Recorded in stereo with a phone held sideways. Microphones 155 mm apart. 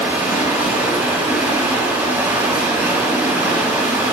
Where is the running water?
10° right (ahead or behind), 5 m.